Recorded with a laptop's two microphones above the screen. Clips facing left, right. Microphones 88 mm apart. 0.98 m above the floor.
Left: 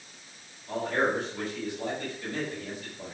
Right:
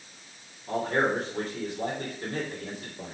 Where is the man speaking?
45° right (ahead or behind), 3.5 m.